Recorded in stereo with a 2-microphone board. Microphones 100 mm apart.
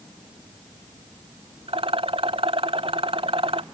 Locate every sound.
1.7 s a rattle: 65° right (ahead or behind)